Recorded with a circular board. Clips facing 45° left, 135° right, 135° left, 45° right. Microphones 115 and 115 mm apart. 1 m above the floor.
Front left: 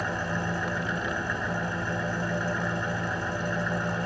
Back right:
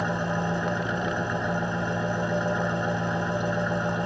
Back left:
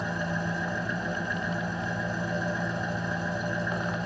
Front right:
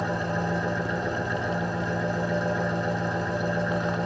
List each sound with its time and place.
0.0 s an engine running: 65° right, 2 m